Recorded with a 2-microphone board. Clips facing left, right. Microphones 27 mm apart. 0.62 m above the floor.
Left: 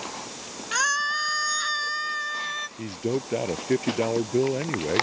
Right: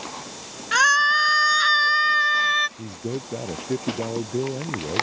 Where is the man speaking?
45° left (ahead or behind).